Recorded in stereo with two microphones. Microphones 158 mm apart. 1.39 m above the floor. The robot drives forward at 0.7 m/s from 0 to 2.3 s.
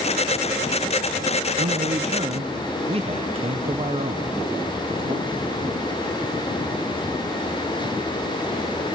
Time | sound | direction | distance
1.6 | a man speaking | 60° right (ahead or behind) | 0.8 m